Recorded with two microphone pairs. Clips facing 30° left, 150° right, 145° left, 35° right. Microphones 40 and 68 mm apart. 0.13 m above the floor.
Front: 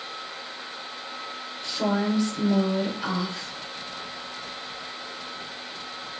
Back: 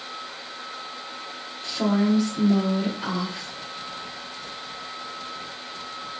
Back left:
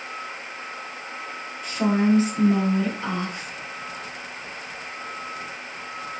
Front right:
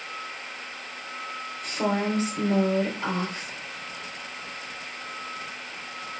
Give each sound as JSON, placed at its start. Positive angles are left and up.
{"t": 1.6, "sound": "a woman speaking", "azimuth_deg": -85, "distance_m": 2.5}